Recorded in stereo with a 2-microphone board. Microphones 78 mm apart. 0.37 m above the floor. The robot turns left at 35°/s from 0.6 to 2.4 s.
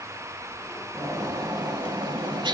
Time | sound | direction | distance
0.9 | a bird | 45° right | 0.7 m